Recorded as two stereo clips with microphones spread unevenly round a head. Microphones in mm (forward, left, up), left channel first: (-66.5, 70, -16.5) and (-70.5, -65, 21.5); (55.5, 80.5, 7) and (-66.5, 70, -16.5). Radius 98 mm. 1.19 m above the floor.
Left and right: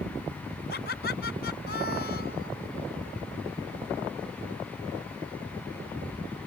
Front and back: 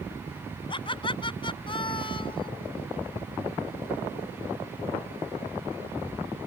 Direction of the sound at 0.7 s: 50° left.